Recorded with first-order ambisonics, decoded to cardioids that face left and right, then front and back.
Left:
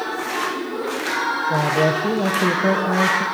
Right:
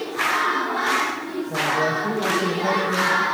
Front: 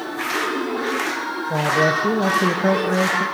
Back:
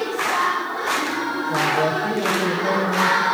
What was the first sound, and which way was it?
A man speaking, 40° left.